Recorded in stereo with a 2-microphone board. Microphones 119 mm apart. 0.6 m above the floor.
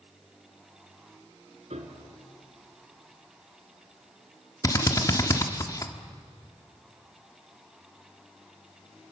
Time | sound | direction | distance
1.7 | a piano | 65° right (ahead or behind) | 2.5 m
4.6 | a drill | 30° left (ahead or behind) | 1.3 m